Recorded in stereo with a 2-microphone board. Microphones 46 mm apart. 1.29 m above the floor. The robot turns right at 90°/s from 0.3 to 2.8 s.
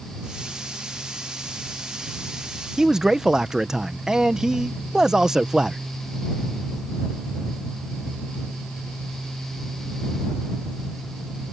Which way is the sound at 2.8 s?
10° right (ahead or behind).